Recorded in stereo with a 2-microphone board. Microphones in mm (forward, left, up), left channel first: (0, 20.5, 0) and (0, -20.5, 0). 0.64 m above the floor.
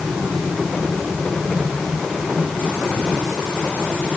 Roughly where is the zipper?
No zipper in this recording.